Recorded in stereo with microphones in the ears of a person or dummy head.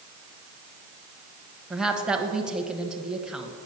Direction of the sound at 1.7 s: 5° right (ahead or behind).